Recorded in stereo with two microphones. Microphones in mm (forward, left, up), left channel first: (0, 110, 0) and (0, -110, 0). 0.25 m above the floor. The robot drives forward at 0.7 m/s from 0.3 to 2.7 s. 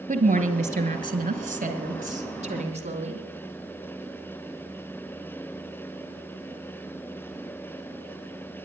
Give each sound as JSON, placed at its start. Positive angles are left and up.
{"t": 0.1, "sound": "a woman speaking", "side_deg": -30, "distance_m": 1.8}